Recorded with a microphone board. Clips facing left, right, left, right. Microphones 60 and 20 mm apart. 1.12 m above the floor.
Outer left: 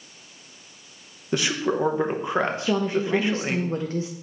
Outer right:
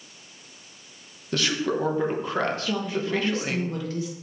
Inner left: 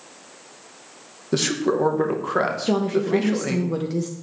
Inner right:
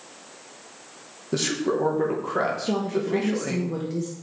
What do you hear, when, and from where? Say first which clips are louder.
1.3 s a man speaking: outer left 2 dB, inner left 3 dB; 20° left (ahead or behind), 1.0 m
2.7 s a woman speaking: outer left 4 dB, inner left 4 dB; 35° left (ahead or behind), 0.6 m